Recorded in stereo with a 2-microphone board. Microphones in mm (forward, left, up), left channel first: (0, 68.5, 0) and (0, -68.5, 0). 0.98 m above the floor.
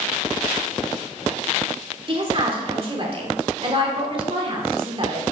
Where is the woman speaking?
40° right (ahead or behind), 2.5 m.